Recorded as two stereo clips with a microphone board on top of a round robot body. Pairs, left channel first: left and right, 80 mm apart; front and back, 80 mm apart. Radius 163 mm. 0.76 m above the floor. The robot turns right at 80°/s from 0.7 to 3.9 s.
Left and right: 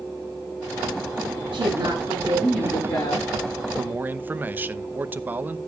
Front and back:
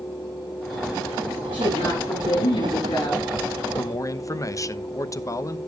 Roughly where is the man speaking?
Ahead right.